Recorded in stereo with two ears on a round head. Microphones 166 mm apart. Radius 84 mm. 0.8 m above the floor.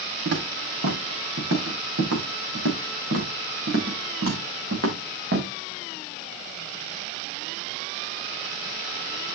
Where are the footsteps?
75° right (ahead or behind), 4.5 m; by 5.5 s 60° right (ahead or behind), 4 m.